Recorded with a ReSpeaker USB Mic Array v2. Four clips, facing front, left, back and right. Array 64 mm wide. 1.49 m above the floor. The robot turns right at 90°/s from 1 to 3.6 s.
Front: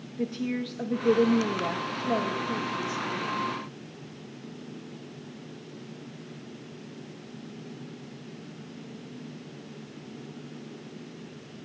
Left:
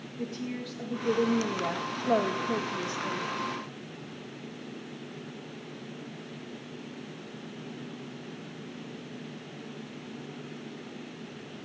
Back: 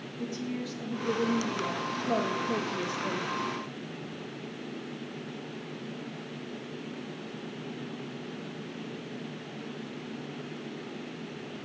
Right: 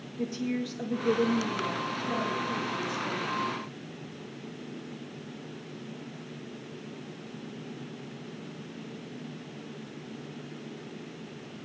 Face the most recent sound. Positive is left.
turn(degrees=-140)